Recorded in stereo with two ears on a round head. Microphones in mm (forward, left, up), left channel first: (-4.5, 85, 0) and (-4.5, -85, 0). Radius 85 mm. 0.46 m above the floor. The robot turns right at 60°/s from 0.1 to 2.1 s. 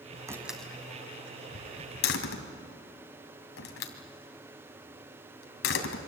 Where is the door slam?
15° right (ahead or behind), 2.5 m; by 6.0 s 75° left (ahead or behind), 2.5 m.